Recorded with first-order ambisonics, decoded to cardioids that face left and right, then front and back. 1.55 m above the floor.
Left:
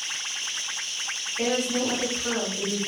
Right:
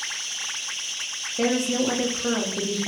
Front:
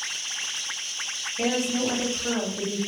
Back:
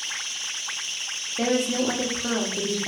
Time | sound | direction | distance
1.4 | a woman speaking | 130° right | 0.8 m